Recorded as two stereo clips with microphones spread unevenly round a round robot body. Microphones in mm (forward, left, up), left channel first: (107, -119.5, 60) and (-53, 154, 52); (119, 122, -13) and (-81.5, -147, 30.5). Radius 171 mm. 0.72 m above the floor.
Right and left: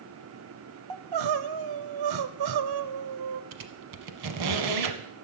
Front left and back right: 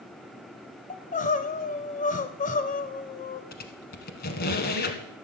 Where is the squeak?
120° left, 1.0 m.